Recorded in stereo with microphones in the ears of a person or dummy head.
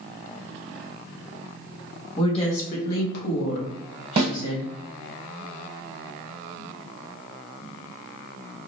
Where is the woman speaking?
35° left (ahead or behind), 1.2 m; by 4.7 s 65° left (ahead or behind), 1.2 m.